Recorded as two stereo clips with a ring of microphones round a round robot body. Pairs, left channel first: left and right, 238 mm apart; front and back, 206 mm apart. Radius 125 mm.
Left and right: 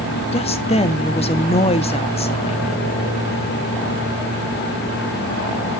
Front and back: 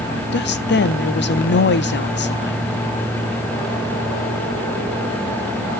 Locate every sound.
0.3 s a woman speaking: 25° left, 1.3 m